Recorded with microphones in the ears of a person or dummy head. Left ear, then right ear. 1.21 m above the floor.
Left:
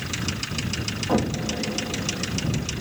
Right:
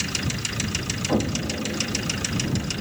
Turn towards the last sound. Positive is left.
turn(degrees=25)  # may be behind; listen again after turning